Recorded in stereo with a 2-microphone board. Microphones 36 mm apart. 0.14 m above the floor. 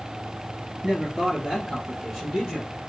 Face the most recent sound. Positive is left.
turn(degrees=10)  # may be behind; listen again after turning